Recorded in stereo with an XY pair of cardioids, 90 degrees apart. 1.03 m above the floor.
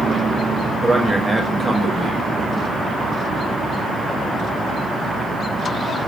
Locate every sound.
0.8 s a man speaking: 5° right, 1.2 m